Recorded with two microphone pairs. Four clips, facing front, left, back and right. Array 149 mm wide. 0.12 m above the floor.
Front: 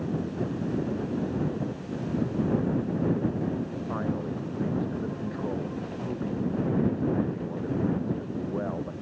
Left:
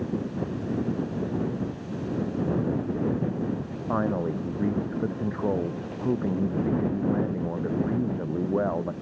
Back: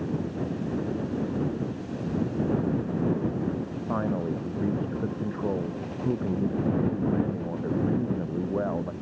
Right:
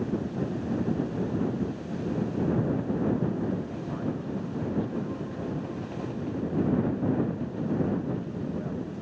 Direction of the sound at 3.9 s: 110° left.